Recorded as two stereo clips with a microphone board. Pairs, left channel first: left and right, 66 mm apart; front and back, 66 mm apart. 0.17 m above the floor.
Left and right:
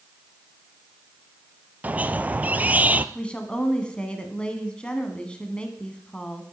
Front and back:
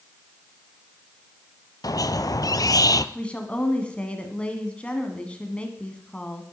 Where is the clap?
I don't hear a clap.